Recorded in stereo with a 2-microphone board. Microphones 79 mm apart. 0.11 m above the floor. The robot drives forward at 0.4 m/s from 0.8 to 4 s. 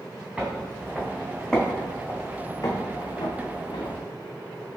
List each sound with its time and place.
0.4 s footsteps: 10° right (ahead or behind), 0.8 m; by 4.0 s 75° left (ahead or behind), 0.6 m